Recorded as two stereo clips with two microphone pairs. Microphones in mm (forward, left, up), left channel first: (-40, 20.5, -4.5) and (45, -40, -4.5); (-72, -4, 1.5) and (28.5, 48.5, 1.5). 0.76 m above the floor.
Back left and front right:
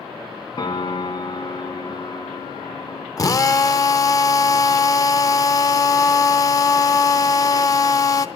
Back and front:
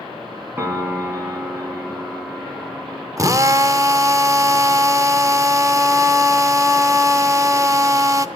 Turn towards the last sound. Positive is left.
turn(degrees=90)